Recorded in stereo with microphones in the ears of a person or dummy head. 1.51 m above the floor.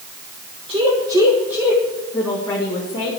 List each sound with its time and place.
0.7 s a woman speaking: 35° right (ahead or behind), 1.7 m; by 3.1 s 35° left (ahead or behind), 2 m